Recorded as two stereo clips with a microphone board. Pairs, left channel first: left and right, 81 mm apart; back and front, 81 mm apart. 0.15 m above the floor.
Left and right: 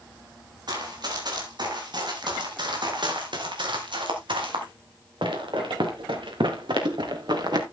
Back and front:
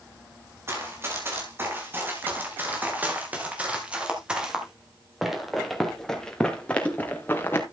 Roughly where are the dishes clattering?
I don't hear dishes clattering.